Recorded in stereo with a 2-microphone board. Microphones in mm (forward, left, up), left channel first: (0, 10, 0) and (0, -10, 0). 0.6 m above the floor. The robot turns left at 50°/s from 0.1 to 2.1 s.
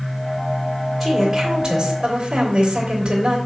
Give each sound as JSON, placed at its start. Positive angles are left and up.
{"t": 1.0, "sound": "a woman speaking", "azimuth_deg": 0, "distance_m": 3.0}